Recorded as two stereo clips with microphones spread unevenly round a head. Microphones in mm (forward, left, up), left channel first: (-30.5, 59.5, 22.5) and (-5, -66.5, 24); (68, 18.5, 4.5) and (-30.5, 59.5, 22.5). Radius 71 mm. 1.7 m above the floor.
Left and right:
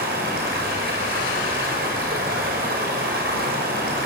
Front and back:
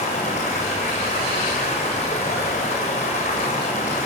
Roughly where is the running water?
Ahead right.